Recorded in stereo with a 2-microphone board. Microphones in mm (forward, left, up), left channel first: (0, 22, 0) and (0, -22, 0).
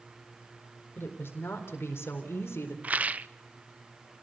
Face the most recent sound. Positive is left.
turn(degrees=-35)  # may be behind; listen again after turning